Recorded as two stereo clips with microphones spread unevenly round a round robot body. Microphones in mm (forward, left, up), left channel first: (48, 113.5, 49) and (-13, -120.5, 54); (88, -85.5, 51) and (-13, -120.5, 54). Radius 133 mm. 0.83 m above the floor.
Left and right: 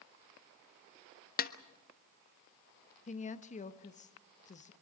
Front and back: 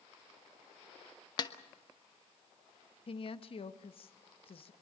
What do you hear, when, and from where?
1.4 s a snare drum: 45° left, 1.0 m
3.1 s a woman speaking: 20° left, 1.1 m